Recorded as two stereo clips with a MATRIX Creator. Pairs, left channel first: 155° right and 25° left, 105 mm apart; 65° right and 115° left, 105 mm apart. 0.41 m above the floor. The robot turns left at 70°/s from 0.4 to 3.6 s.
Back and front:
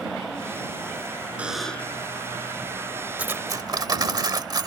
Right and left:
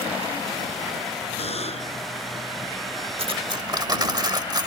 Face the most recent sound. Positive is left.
turn(degrees=70)